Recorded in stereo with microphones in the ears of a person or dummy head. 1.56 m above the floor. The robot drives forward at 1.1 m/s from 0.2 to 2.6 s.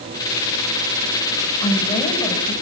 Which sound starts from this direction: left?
A woman speaking, at 1.6 s.